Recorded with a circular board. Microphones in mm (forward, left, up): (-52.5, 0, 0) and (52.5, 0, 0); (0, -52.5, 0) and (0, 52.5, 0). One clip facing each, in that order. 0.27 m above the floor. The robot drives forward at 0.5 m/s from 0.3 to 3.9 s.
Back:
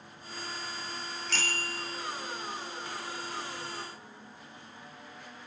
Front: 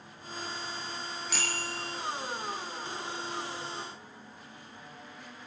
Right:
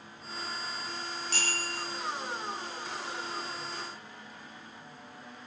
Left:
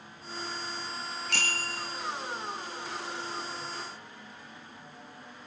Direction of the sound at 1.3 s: 80° left.